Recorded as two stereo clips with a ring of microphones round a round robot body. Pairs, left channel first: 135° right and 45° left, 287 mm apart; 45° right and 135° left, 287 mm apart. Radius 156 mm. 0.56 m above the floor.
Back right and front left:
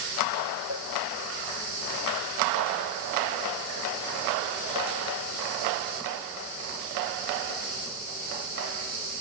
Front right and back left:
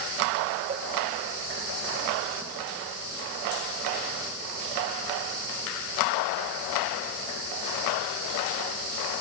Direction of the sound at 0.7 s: 160° right.